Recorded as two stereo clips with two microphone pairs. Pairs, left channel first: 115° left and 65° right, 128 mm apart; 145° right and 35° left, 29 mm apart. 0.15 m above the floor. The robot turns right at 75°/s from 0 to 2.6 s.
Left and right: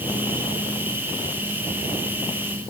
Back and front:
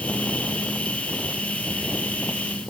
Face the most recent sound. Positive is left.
No sound to turn to.